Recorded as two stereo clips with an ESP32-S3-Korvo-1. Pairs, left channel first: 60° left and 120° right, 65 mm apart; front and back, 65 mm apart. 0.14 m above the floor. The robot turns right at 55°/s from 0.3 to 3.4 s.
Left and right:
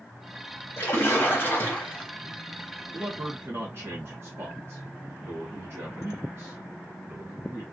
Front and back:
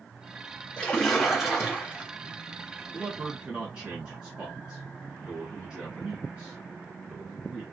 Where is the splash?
65° left, 2 m; by 2.1 s 135° left, 2 m.